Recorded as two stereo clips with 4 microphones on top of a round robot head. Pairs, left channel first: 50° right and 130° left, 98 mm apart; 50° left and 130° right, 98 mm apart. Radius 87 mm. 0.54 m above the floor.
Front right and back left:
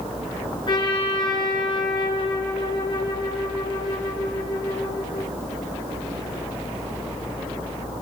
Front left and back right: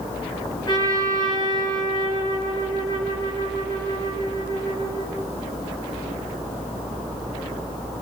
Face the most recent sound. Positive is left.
turn(degrees=0)